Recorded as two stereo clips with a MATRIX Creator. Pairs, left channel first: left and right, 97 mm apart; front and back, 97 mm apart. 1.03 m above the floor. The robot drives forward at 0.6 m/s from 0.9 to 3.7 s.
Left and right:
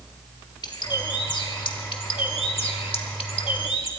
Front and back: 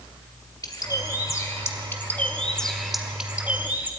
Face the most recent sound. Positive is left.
turn(degrees=110)